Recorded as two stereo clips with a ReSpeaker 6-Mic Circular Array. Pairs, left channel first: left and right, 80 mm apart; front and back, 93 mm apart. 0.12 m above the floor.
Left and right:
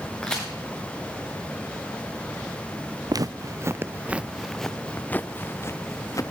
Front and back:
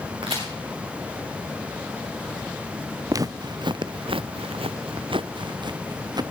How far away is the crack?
About 5 m.